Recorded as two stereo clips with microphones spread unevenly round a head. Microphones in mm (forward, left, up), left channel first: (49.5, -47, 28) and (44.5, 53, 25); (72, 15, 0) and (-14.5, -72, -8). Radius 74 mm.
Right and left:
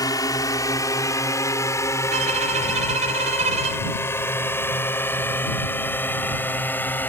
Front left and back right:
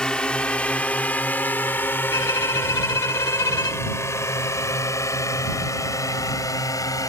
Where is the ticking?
I don't hear ticking.